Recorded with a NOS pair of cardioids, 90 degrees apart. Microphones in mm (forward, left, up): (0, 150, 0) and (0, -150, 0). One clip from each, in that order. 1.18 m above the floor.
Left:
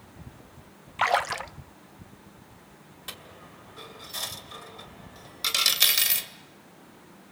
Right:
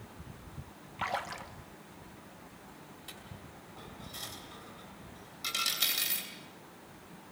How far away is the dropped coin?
About 2.5 m.